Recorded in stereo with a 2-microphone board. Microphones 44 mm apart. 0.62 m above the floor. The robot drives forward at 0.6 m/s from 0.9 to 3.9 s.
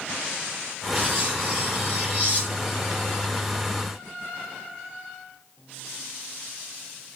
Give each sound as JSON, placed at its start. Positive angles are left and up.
{"t": 0.9, "sound": "cutlery clinking", "side_deg": -35, "distance_m": 9.5}